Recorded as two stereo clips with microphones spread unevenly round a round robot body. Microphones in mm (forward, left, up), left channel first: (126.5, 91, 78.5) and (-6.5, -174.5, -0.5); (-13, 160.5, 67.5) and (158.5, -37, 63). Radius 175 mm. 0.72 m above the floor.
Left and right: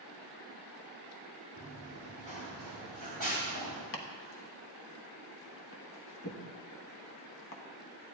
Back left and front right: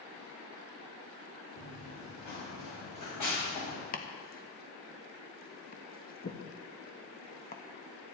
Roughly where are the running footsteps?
Behind left.